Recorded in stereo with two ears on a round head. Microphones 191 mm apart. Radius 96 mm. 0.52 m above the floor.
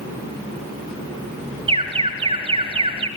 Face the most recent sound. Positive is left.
turn(degrees=-25)  # may be behind; listen again after turning